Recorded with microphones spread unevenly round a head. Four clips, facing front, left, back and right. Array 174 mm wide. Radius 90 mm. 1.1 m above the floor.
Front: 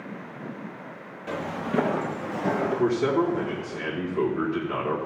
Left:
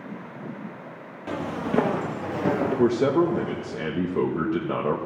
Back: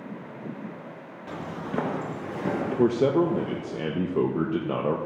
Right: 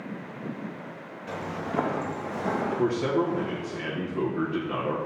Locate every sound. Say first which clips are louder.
1.3 s footsteps: left 5 dB, front 4 dB; 80° left, 2 m; by 3.8 s 155° left, 1.8 m
2.8 s a man speaking: left 6 dB, back 4 dB; 140° left, 1.5 m